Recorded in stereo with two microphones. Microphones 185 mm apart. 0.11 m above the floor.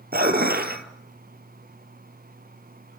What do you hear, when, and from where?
0.1 s dishes clattering: 60° right (ahead or behind), 1.5 m